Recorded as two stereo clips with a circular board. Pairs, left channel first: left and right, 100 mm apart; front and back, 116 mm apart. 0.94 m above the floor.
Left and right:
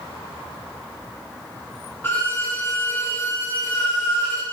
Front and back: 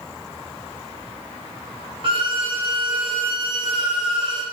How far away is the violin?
About 1.0 m.